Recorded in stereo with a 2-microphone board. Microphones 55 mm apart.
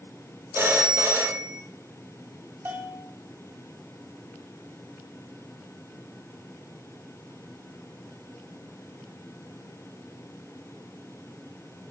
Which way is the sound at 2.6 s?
40° right (ahead or behind).